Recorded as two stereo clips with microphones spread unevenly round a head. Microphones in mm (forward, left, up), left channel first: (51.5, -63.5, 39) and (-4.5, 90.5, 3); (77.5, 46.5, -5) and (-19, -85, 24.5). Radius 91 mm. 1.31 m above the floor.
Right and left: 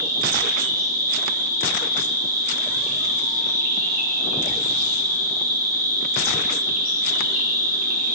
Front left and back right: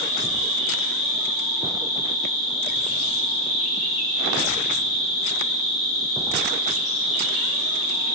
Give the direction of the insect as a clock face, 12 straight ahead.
9 o'clock.